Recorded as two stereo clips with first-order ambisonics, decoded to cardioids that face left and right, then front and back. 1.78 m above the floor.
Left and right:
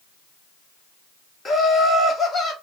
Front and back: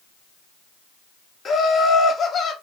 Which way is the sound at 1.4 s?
35° left.